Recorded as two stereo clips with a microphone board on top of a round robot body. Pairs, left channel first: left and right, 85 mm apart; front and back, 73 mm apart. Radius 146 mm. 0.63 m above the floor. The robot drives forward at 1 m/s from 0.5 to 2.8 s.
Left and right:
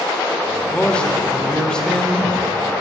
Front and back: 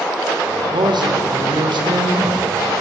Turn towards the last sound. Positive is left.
turn(degrees=175)